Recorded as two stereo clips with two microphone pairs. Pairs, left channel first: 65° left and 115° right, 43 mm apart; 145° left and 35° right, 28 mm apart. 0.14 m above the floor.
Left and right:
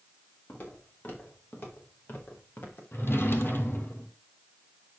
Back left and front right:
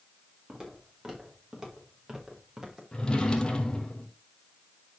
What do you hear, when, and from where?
0.5 s footsteps: 30° left, 5 m; by 2.8 s 35° left, 3.5 m
2.9 s a drawer: 85° left, 1.4 m